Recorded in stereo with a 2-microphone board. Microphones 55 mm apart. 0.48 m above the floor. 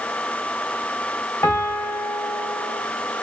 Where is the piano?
40° left (ahead or behind), 2.5 m.